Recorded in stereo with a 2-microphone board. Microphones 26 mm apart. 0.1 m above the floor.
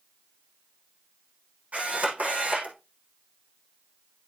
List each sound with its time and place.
1.7 s a camera shutter: 65° right (ahead or behind), 6.5 m